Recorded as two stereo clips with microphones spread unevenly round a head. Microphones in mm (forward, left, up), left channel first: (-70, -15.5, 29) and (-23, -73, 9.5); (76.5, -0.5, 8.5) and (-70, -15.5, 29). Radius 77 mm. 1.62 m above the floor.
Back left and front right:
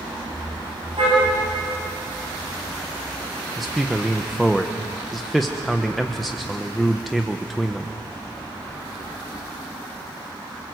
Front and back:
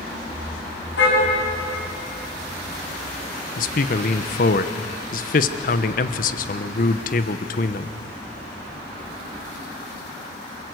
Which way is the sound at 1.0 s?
Straight ahead.